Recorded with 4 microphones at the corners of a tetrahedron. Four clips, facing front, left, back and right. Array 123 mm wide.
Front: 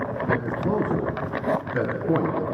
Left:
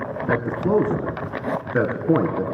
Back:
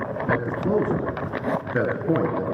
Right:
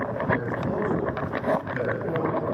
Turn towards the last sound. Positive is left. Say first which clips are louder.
# left 10 dB, back 3 dB
turn(degrees=85)